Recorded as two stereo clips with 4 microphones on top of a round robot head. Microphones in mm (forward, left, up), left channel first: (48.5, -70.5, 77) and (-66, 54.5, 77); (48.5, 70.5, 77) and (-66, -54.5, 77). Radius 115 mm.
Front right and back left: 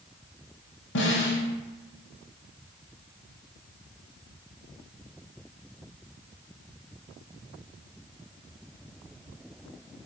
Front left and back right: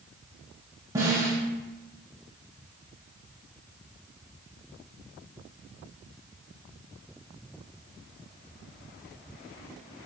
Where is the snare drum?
60° right, 0.7 m.